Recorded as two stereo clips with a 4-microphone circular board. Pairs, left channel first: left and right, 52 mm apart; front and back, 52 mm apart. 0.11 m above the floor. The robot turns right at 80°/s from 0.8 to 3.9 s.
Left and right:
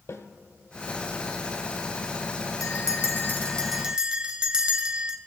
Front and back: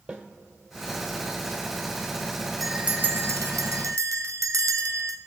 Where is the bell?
90° left, 0.7 m; by 5.2 s 165° right, 0.7 m.